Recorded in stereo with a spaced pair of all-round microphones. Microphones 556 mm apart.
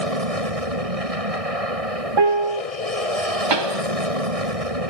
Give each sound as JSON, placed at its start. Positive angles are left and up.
{"t": 0.0, "sound": "an aircraft", "side_deg": -75}
{"t": 2.2, "sound": "a piano", "side_deg": -50}
{"t": 3.5, "sound": "a pop", "side_deg": -50}